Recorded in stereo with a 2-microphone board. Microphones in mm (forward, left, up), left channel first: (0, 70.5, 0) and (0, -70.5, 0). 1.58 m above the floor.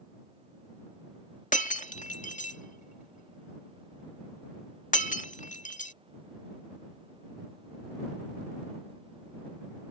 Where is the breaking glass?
60° left (ahead or behind).